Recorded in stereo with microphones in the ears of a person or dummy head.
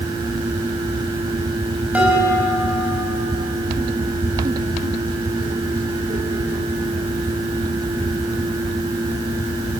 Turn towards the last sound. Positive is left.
turn(degrees=0)  # may be behind; listen again after turning